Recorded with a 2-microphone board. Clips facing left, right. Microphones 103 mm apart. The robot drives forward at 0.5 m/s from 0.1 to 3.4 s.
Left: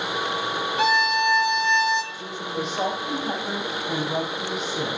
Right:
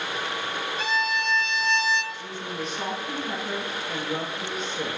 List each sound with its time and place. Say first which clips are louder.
0.8 s a violin: left 7 dB; 80° left, 0.8 m; by 2.0 s 50° left (ahead or behind), 1.1 m
2.1 s a woman speaking: left 4 dB; 75° left (ahead or behind), 4.5 m; by 5.0 s 70° left (ahead or behind), 5 m